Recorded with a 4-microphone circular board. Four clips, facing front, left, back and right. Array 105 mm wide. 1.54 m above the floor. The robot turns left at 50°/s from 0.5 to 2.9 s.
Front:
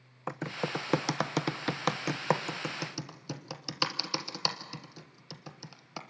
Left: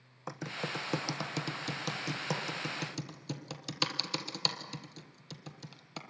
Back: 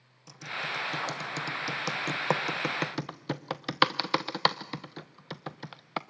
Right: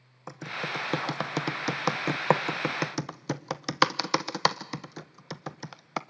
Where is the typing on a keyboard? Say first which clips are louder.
Right 4 dB, front 3 dB; straight ahead, 0.9 m; by 6.0 s 120° right, 0.9 m.